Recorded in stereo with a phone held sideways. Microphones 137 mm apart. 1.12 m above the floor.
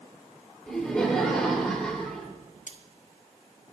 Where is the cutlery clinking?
65° left (ahead or behind), 1.3 m.